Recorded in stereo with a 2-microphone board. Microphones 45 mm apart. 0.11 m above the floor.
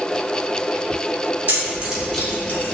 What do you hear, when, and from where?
1.5 s keys jangling: 40° right (ahead or behind), 1.2 m; by 2.6 s 40° left (ahead or behind), 1.3 m